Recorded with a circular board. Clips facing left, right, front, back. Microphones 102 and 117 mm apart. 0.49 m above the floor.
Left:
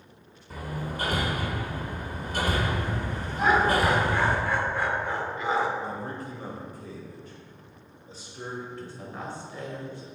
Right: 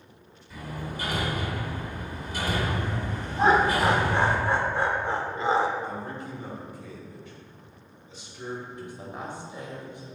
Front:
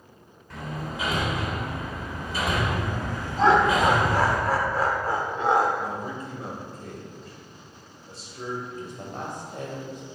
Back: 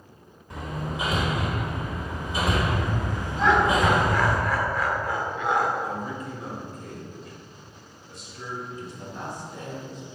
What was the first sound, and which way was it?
Hammering, 110° left.